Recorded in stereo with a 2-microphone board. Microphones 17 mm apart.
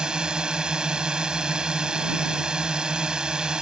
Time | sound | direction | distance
0.0 | a drone | 55° right (ahead or behind) | ?